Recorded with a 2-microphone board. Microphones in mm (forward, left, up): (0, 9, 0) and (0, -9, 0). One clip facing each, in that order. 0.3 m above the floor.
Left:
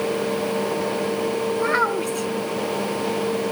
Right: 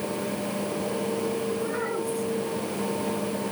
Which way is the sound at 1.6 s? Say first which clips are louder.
Left 8 dB; 55° left (ahead or behind).